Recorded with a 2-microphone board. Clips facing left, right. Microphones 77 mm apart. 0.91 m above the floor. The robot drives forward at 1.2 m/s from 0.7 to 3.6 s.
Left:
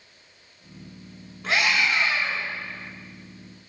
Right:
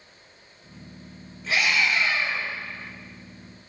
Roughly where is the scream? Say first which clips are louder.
Left 1 dB; left.